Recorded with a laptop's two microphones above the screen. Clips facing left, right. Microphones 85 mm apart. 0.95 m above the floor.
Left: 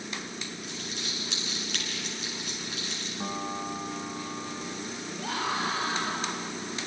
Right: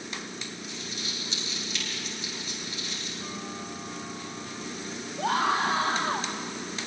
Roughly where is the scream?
Right.